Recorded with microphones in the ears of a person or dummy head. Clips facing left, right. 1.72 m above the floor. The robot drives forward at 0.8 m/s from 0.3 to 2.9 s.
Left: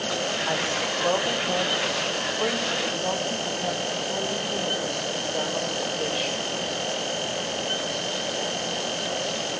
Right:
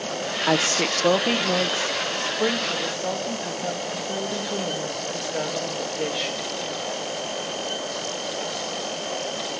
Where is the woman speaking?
55° right (ahead or behind), 0.9 m; by 6.4 s 15° right (ahead or behind), 2.5 m.